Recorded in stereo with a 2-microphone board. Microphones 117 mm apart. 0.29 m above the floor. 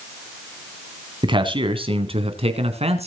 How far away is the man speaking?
About 2 m.